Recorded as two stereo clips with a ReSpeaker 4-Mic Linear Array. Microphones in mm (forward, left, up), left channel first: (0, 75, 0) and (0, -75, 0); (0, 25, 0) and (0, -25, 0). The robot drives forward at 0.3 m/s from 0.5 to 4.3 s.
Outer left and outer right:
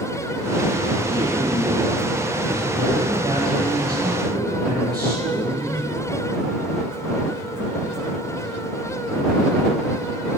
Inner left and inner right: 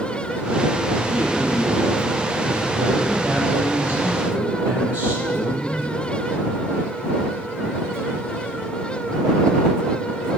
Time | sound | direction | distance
1.1 | a man speaking | 25° right (ahead or behind) | 10 m